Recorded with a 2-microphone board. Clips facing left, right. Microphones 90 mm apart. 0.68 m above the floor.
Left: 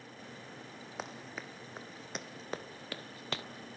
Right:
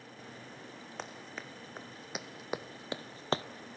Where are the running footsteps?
5° left (ahead or behind), 2 m; by 3.4 s 35° right (ahead or behind), 0.8 m.